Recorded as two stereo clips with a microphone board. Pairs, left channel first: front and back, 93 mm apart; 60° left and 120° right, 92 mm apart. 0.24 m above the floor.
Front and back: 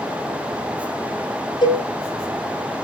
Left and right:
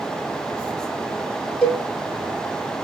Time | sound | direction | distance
1.6 | a cowbell | 20° right | 5.5 m